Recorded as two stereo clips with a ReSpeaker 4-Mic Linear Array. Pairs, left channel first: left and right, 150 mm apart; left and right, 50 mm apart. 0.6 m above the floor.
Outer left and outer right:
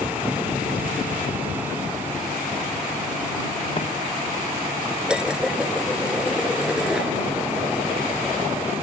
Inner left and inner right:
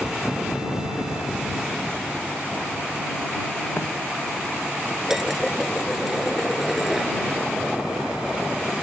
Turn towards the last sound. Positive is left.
turn(degrees=-5)  # may be behind; listen again after turning